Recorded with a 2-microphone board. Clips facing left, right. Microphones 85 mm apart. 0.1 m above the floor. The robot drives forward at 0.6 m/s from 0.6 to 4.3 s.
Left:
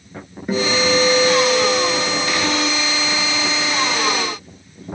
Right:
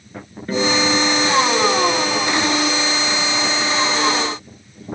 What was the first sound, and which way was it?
A guitar, 15° left (ahead or behind).